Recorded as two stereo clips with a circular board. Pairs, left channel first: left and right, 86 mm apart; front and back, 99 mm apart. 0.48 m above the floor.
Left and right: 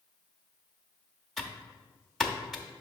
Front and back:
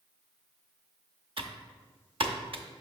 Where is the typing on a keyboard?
Straight behind, 0.6 m.